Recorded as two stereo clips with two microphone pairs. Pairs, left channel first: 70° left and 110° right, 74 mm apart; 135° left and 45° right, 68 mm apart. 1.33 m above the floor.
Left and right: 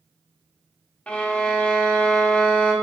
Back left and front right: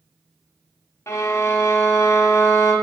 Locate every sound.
1.1 s a violin: 135° left, 1.6 m